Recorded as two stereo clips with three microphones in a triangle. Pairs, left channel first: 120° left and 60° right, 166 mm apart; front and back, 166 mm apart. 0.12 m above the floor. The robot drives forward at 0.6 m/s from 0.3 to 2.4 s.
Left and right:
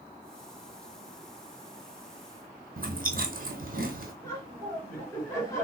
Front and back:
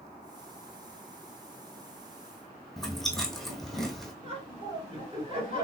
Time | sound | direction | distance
2.8 | chewing | 90° right | 0.8 m
4.2 | laughter | straight behind | 1.8 m